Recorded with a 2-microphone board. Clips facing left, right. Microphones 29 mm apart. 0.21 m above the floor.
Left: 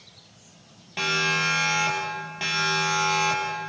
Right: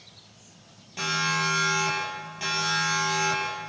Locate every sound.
1.0 s a siren: 30° left (ahead or behind), 6.5 m; by 3.7 s 15° left (ahead or behind), 6.5 m